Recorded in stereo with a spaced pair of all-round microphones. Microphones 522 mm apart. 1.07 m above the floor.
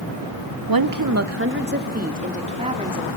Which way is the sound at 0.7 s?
45° right (ahead or behind).